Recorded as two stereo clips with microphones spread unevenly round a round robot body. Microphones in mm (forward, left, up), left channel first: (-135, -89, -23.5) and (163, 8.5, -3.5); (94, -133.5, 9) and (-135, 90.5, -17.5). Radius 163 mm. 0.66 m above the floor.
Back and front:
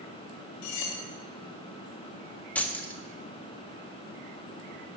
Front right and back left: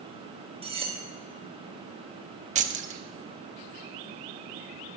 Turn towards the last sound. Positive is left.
turn(degrees=125)